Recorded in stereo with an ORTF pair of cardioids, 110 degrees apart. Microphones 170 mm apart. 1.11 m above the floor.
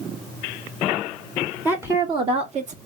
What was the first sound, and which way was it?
A woman speaking, 10° right.